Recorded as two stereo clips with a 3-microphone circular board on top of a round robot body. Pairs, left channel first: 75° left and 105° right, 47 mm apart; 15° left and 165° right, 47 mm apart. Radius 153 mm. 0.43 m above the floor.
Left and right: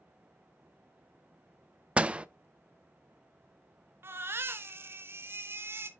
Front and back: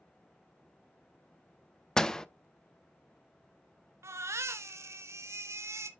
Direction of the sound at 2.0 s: 55° right.